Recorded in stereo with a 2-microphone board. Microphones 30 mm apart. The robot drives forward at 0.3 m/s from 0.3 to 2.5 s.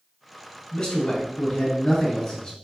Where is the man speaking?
20° left (ahead or behind), 1.1 m.